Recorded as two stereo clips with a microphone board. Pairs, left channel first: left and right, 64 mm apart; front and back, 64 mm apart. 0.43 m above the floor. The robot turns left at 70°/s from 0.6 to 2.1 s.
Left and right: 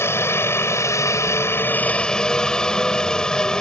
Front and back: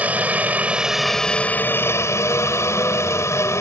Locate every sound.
0.0 s a helicopter: 120° left; by 3.6 s 15° left